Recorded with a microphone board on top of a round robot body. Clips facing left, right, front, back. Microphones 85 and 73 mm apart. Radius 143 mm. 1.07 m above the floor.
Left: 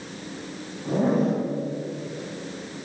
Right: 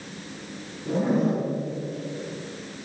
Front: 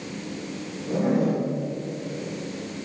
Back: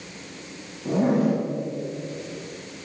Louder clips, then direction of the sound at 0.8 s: Left 1 dB, back 2 dB; 145° left.